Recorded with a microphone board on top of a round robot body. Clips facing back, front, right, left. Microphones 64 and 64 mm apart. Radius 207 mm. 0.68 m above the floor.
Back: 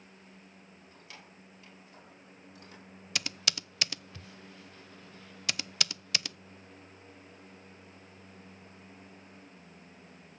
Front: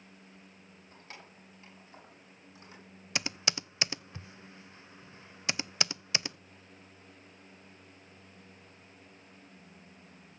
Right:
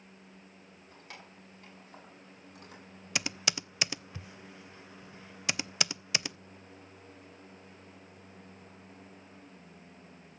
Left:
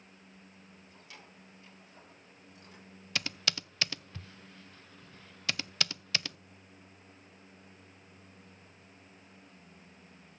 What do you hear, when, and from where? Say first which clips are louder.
0.9 s keys jangling: front 3 dB, right 5 dB; 50° right, 3 m; by 2.8 s 70° right, 5.5 m
3.1 s typing on a keyboard: front 2 dB, right 2 dB; 35° right, 0.5 m